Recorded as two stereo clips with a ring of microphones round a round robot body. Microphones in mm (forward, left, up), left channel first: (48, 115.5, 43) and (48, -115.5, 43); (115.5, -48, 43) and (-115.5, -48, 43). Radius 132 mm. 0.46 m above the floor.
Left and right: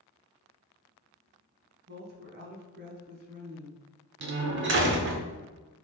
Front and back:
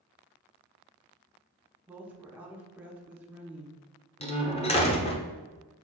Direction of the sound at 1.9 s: 100° right.